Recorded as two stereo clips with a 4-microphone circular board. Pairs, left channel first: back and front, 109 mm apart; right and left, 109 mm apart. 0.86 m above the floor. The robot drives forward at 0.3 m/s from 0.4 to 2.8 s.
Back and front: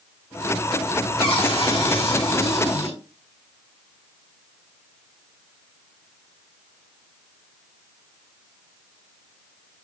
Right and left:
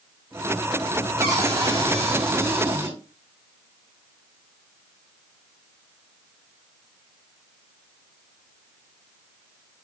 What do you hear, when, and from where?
1.2 s a cupboard door: 150° left, 1.1 m; by 3.0 s 160° left, 1.5 m